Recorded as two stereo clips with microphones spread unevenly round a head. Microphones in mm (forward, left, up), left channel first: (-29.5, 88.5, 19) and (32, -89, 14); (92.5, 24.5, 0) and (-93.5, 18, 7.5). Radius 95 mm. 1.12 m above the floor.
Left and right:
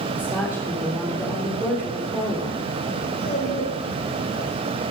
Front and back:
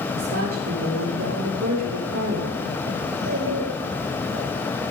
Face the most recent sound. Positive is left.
turn(degrees=165)